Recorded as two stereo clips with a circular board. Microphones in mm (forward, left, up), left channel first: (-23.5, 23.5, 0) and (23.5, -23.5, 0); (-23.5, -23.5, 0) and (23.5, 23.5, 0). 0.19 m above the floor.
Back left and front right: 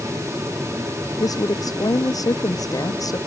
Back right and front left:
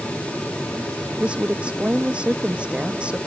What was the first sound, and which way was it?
A woman speaking, 115° left.